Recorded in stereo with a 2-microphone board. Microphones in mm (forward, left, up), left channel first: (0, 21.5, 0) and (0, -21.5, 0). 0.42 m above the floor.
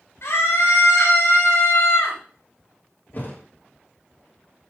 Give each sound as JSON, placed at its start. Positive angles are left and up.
{"t": 0.2, "sound": "a scream", "side_deg": 70, "distance_m": 6.5}
{"t": 3.1, "sound": "a thud", "side_deg": 45, "distance_m": 4.5}